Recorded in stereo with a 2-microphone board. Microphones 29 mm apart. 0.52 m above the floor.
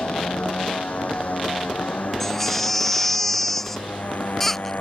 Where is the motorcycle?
45° left (ahead or behind); by 4.8 s 55° left (ahead or behind).